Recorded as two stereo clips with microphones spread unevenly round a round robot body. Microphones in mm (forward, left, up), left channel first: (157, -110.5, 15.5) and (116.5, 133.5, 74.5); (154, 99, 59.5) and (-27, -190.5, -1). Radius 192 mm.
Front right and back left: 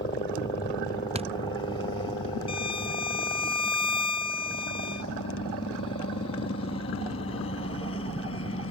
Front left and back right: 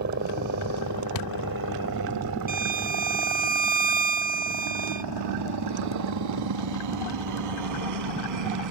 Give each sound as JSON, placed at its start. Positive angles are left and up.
{"t": 0.0, "sound": "a helicopter", "azimuth_deg": -120}
{"t": 1.1, "sound": "a thud", "azimuth_deg": 35}
{"t": 2.5, "sound": "a violin", "azimuth_deg": -105}